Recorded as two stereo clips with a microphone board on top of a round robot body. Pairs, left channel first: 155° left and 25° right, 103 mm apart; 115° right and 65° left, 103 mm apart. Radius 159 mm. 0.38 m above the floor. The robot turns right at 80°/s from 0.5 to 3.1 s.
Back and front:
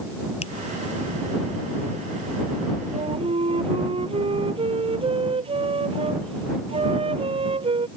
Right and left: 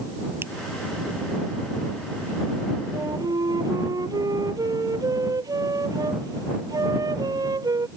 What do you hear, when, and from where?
0.4 s a finger snap: 140° left
2.9 s a flute: 5° right; by 7.9 s 10° left